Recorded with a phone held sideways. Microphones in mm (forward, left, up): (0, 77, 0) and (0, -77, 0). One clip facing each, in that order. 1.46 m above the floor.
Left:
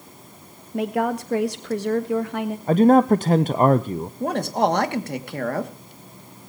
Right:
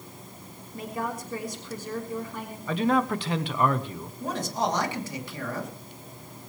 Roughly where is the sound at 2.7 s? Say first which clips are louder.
Left 10 dB; left.